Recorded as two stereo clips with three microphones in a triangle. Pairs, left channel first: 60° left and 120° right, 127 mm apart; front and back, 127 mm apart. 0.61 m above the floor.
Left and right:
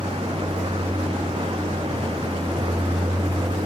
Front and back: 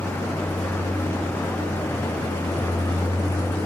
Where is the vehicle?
75° right; by 3.6 s 70° right.